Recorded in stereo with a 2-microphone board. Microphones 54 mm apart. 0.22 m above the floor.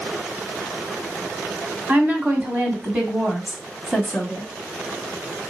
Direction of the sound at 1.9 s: 35° right (ahead or behind).